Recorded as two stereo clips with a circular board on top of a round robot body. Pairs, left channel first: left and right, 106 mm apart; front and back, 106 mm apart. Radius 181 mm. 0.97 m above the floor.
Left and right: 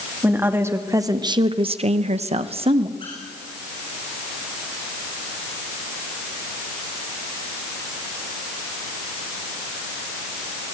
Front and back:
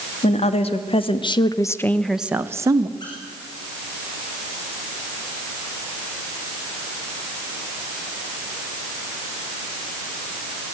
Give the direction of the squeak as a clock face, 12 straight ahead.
10 o'clock.